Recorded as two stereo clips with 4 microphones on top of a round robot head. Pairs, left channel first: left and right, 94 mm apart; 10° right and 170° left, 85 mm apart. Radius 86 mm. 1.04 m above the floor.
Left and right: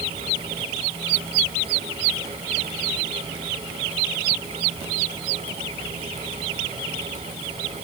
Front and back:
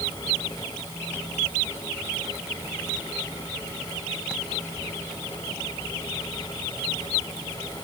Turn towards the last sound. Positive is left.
No sound to turn to.